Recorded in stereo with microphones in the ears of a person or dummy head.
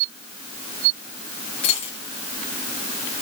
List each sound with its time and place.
1.6 s a dropped coin: 35° left (ahead or behind), 4.5 m